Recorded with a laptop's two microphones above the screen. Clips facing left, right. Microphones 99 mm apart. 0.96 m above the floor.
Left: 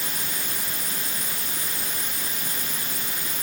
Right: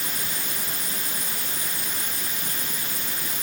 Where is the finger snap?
No finger snap in this recording.